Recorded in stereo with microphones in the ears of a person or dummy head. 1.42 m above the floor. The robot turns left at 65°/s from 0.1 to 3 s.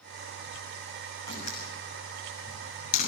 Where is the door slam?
25° left (ahead or behind), 6.5 m; by 3.1 s 40° left (ahead or behind), 6.5 m.